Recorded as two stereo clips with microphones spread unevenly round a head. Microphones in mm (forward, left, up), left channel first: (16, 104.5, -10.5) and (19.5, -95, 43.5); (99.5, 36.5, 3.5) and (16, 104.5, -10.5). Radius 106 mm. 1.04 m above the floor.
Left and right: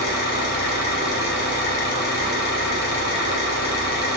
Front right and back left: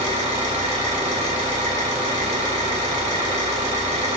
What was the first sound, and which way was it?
An engine running, 135° left.